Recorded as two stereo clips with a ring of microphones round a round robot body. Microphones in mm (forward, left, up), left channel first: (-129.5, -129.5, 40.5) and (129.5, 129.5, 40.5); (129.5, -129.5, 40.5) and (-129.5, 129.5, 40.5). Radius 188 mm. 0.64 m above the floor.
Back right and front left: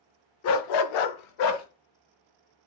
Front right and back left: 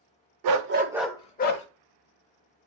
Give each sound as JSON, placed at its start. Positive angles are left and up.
{"t": 0.4, "sound": "a dog barking", "azimuth_deg": 170, "distance_m": 0.6}